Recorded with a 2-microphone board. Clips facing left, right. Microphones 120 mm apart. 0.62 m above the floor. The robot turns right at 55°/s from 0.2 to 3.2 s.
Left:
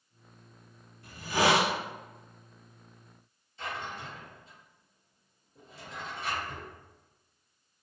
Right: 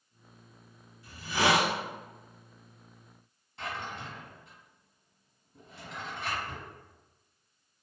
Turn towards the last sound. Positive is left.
turn(degrees=-80)